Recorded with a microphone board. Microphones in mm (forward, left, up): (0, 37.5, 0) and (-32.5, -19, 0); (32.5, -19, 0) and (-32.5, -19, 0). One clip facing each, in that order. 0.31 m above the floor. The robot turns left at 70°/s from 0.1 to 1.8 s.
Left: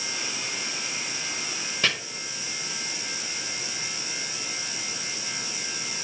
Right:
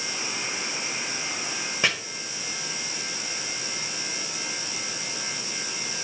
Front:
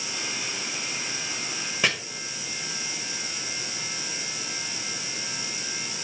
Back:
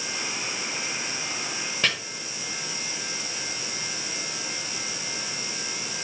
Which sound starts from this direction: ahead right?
Chopping, at 1.8 s.